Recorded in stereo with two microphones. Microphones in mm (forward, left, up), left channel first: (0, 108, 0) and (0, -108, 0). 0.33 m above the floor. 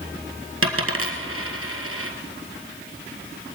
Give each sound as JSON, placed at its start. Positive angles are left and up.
{"t": 0.6, "sound": "a dropped coin", "side_deg": -85, "distance_m": 1.7}